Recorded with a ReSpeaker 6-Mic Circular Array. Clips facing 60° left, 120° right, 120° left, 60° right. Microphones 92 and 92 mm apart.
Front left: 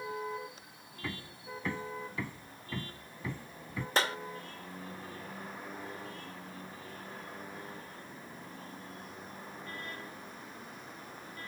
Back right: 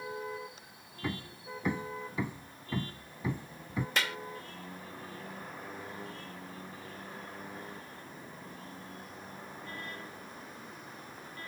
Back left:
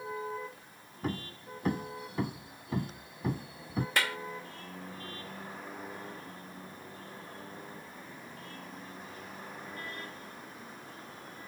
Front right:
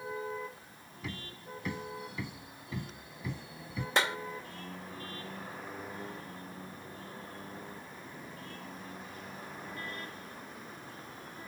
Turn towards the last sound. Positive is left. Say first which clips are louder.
# front left 5 dB, front right 3 dB
turn(degrees=5)